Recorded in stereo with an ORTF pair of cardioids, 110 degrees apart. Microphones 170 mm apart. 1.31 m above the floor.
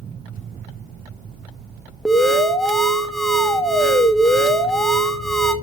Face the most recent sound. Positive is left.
turn(degrees=0)